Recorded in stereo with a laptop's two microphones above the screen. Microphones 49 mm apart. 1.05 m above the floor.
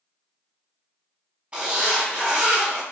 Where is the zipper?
30° right (ahead or behind), 2.0 m.